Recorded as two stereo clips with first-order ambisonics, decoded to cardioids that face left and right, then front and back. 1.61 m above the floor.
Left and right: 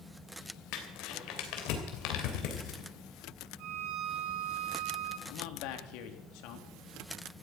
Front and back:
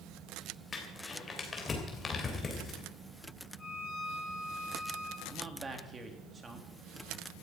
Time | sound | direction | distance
0.7 | crumpling | 75° left | 3 m
3.6 | a violin | 80° right | 7 m
5.3 | a man speaking | 110° left | 2.5 m